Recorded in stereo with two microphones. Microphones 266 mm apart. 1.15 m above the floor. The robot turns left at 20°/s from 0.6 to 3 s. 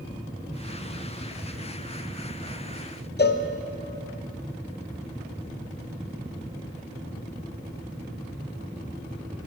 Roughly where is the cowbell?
Left.